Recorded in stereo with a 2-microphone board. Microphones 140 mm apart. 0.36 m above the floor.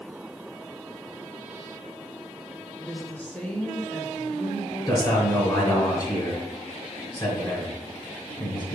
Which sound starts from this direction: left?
A man speaking, at 4.9 s.